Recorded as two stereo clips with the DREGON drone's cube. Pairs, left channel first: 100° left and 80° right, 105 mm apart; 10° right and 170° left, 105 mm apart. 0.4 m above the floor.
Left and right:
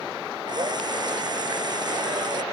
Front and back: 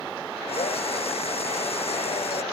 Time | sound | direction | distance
0.5 | a drill | 30° right | ?